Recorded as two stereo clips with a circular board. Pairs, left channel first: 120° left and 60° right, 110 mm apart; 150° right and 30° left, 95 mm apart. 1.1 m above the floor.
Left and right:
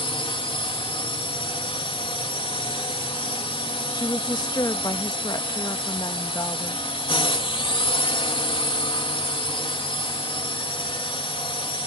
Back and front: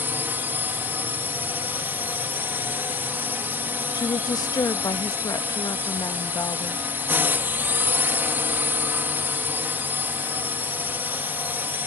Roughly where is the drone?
Left.